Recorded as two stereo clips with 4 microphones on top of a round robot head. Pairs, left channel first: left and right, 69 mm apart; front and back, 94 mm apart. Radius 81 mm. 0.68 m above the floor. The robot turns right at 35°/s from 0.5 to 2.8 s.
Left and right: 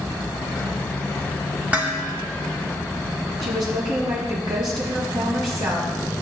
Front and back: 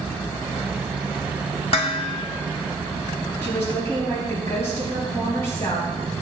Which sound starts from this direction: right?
A woman speaking, at 3.4 s.